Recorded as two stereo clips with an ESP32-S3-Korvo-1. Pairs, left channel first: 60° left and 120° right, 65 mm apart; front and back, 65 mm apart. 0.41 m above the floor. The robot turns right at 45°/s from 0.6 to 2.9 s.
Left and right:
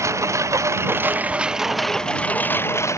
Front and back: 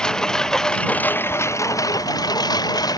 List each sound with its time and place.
0.0 s a lawn mower: 75° right; by 3.0 s 15° left